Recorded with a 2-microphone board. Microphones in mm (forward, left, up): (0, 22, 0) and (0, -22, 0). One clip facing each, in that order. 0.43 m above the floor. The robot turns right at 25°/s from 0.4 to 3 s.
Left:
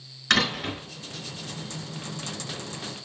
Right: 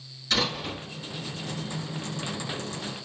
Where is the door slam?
70° left (ahead or behind), 2.5 m; by 0.8 s 75° left (ahead or behind), 2.5 m.